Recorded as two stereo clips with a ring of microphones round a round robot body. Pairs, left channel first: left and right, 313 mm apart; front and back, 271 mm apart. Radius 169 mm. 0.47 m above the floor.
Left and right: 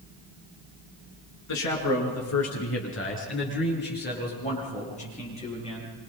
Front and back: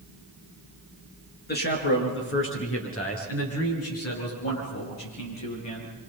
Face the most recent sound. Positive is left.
turn(degrees=15)